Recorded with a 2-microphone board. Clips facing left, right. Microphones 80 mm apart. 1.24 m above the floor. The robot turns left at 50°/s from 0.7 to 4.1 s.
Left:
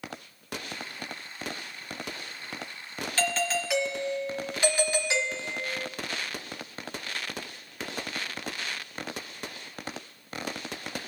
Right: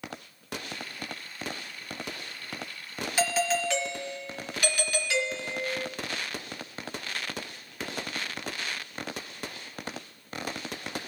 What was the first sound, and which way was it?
A doorbell, 160° right.